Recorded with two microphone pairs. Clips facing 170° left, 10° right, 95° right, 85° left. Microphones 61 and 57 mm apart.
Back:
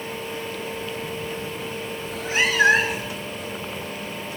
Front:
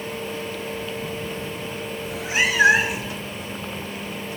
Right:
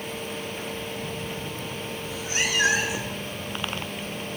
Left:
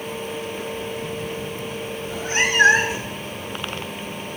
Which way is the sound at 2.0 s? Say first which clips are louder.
Even, left 7 dB; 65° left.